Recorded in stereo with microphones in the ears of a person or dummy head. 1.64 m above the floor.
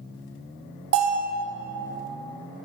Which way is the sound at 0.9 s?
55° right (ahead or behind).